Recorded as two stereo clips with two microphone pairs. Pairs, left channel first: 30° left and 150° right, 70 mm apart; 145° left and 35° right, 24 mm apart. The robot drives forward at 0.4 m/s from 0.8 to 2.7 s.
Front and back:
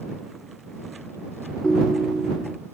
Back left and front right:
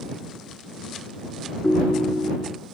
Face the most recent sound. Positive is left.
turn(degrees=115)